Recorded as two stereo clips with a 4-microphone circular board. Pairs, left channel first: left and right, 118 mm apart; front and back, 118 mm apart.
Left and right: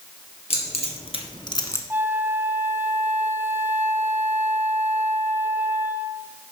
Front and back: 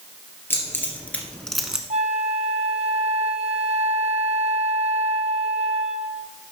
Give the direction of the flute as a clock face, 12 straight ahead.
5 o'clock.